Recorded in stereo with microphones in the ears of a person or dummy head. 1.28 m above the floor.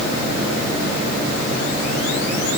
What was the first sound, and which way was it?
Only background noise.